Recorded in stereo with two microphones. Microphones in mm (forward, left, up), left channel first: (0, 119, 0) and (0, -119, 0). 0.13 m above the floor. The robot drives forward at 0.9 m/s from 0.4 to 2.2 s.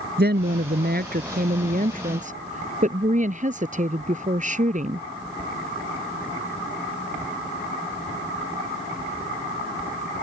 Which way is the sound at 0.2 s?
45° right (ahead or behind).